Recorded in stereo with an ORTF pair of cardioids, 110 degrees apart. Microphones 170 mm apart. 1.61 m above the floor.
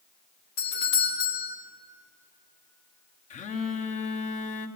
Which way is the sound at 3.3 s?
45° left.